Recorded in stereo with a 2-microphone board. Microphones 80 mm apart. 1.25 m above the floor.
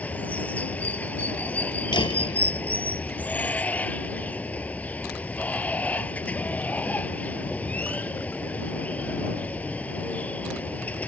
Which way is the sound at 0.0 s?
20° left (ahead or behind).